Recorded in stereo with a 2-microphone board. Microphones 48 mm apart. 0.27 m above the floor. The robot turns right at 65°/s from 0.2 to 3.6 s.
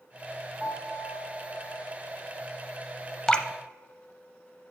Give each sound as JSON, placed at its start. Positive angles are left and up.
{"t": 0.6, "sound": "a piano", "side_deg": -15, "distance_m": 1.7}
{"t": 3.3, "sound": "dripping", "side_deg": 15, "distance_m": 0.5}